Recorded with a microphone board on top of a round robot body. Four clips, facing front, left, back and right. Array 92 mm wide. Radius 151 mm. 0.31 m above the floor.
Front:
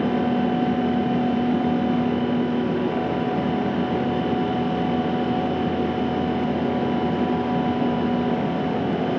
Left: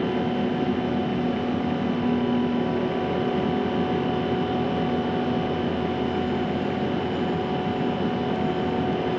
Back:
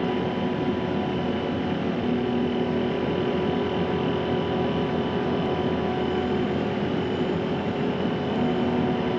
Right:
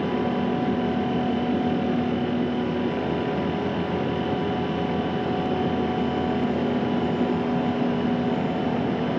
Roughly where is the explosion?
I don't hear an explosion.